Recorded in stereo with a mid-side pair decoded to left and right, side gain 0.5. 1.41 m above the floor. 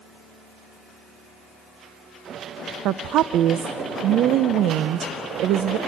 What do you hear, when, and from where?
2.9 s a woman speaking: 70° right, 0.7 m